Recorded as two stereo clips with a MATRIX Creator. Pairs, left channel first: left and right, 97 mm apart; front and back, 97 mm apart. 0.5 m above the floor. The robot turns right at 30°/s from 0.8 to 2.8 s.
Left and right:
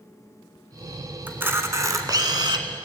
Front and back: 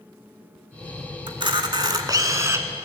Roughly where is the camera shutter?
Behind.